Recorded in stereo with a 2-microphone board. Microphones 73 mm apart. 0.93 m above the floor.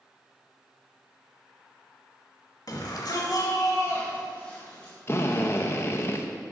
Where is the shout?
55° left (ahead or behind), 1.5 m; by 4.9 s 15° left (ahead or behind), 2 m.